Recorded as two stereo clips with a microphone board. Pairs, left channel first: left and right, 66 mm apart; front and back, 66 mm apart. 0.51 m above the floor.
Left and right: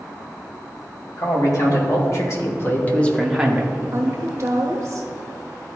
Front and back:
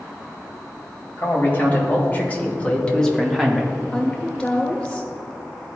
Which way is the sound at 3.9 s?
80° right.